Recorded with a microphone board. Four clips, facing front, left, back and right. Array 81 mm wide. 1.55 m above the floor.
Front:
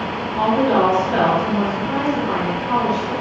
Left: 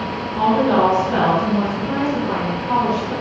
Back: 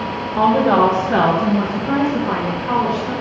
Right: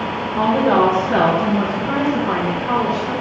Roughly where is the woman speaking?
Behind.